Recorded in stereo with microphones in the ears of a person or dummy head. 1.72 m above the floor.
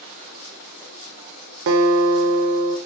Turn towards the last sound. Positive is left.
turn(degrees=-65)  # may be behind; listen again after turning